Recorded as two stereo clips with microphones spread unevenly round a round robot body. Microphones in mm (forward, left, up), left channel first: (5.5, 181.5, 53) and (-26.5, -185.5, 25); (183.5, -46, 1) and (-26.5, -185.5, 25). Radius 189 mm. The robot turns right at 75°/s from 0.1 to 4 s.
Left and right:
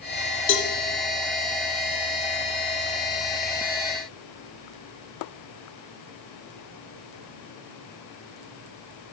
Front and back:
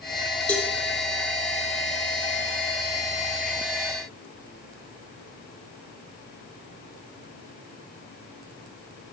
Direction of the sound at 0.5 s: 105° left.